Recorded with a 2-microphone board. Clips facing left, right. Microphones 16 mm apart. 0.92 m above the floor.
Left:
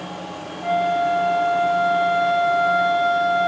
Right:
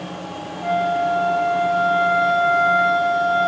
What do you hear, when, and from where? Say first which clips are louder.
0.6 s a flute: even; 30° right (ahead or behind), 2 m